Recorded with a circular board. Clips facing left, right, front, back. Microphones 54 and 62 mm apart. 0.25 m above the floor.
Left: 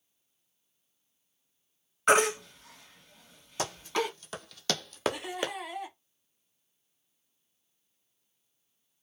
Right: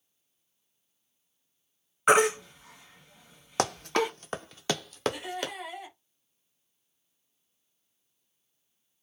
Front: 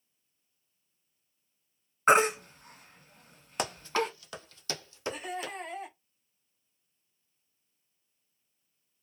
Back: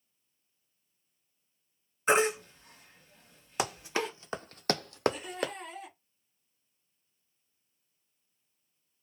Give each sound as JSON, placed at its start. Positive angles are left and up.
{"t": 2.1, "sound": "a baby crying", "azimuth_deg": -15, "distance_m": 1.9}
{"t": 3.6, "sound": "running footsteps", "azimuth_deg": -95, "distance_m": 0.7}
{"t": 5.1, "sound": "laughter", "azimuth_deg": -5, "distance_m": 2.0}